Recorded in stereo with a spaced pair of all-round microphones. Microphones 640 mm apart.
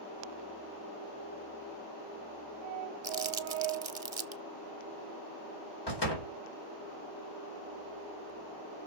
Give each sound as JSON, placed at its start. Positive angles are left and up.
{"t": 3.0, "sound": "crumpling", "side_deg": -45, "distance_m": 0.8}
{"t": 5.9, "sound": "a door slam", "side_deg": 40, "distance_m": 4.0}